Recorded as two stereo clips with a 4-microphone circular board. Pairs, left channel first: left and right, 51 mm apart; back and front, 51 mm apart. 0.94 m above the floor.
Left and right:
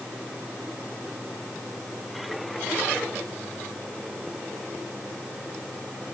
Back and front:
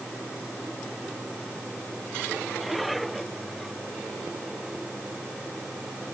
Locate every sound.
Only background noise.